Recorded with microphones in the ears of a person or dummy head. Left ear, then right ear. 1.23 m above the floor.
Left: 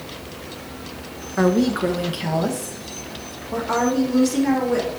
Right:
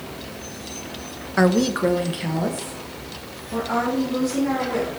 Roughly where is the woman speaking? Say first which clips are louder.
Even; right.